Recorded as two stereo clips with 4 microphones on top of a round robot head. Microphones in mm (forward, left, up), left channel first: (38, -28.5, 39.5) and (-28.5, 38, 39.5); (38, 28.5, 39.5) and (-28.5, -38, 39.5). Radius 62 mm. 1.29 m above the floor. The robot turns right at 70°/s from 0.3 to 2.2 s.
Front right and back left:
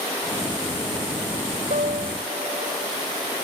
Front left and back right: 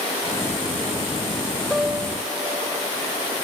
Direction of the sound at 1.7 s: 135° left.